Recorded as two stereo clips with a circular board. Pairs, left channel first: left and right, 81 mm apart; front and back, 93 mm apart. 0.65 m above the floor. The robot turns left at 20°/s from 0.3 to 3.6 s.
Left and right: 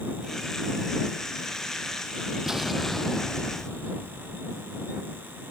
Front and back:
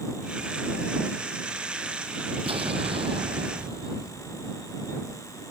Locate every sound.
2.5 s an explosion: 170° right; by 4.4 s 165° left